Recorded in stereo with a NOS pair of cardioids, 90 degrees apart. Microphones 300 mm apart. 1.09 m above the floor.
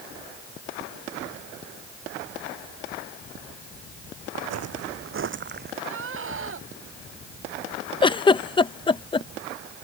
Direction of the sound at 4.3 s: 65° right.